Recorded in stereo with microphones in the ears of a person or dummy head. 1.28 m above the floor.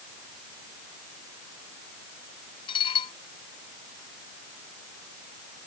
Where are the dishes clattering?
35° left (ahead or behind).